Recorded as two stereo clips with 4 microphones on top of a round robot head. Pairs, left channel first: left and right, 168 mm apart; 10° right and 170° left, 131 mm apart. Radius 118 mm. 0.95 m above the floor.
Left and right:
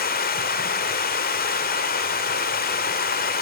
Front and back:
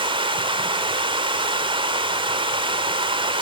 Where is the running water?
120° left, 1.9 m.